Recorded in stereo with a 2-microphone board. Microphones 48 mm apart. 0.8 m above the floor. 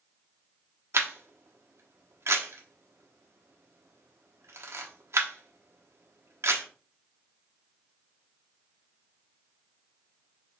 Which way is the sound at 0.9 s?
70° right (ahead or behind).